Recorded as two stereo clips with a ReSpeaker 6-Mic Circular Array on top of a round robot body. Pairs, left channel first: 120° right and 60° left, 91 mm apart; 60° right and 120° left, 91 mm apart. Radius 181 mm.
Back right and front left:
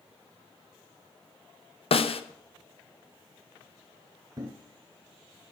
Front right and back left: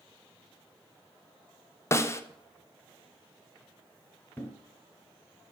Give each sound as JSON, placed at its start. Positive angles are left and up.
{"t": 1.9, "sound": "a snare drum", "azimuth_deg": -120, "distance_m": 1.0}
{"t": 4.4, "sound": "a thud", "azimuth_deg": 10, "distance_m": 1.2}